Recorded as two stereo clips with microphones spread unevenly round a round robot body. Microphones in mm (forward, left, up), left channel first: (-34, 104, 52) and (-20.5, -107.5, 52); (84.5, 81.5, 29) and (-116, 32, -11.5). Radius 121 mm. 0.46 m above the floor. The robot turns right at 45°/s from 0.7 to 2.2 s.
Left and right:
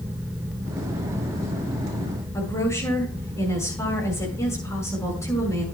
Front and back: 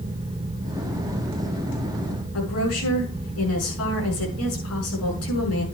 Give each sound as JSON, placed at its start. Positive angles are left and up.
{"t": 2.3, "sound": "a woman speaking", "azimuth_deg": 15, "distance_m": 6.5}